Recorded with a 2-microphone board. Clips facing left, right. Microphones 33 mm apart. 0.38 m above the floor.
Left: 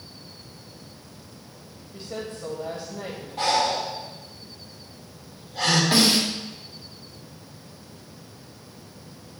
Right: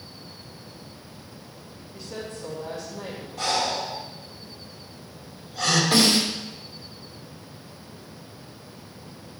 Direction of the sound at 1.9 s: 50° left (ahead or behind).